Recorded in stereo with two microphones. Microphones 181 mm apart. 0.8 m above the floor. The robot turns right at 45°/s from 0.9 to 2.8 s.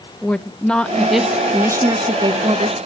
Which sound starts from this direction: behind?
A woman speaking, at 0.2 s.